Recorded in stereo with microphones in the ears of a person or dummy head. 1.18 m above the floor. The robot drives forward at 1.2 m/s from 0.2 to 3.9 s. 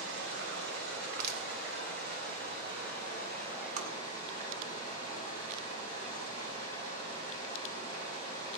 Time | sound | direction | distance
0.0 | running water | 85° right | 5 m
1.1 | crushing | 55° right (ahead or behind) | 1.4 m
3.8 | tapping | 50° right (ahead or behind) | 1.9 m